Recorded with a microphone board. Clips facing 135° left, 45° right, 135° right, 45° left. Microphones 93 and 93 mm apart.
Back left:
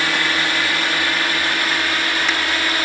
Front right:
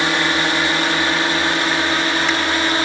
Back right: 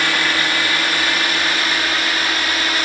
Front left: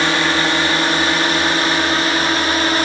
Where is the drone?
5° left.